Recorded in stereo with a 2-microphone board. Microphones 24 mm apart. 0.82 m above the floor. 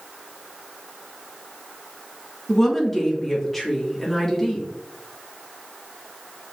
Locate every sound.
2.5 s a woman speaking: 10° left (ahead or behind), 1.3 m